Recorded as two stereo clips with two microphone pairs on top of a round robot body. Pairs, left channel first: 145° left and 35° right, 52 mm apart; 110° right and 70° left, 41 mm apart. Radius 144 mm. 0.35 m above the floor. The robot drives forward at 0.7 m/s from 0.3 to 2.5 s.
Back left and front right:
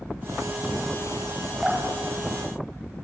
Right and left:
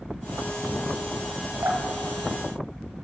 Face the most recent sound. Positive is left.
turn(degrees=70)